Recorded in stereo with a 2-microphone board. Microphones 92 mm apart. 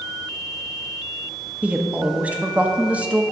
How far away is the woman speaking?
About 0.8 m.